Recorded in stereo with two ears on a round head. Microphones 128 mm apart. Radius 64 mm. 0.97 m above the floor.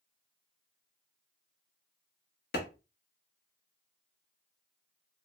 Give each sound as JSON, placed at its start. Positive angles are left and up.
{"t": 2.5, "sound": "a clap", "side_deg": 70, "distance_m": 1.0}